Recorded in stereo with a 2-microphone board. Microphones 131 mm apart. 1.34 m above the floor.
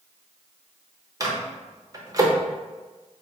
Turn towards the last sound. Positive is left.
turn(degrees=-25)  # may be behind; listen again after turning